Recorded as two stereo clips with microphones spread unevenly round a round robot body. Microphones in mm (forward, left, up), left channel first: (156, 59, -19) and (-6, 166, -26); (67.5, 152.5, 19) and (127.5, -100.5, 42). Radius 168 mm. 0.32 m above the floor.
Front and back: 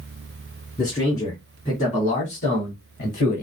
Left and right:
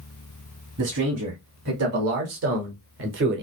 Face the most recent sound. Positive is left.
turn(degrees=-60)